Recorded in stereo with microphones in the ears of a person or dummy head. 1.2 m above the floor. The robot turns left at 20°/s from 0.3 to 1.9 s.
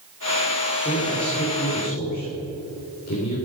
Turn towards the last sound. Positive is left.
turn(degrees=45)  # may be behind; listen again after turning